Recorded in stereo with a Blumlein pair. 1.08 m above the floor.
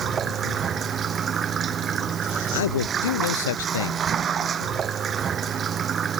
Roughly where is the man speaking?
Ahead left.